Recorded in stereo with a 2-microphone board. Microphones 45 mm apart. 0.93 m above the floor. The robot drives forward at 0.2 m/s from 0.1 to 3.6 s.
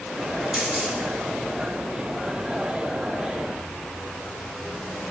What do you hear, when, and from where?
0.5 s a camera shutter: 20° right (ahead or behind), 3.5 m